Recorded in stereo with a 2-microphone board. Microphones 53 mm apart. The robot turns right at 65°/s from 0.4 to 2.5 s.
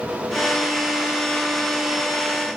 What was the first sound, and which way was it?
Only background noise.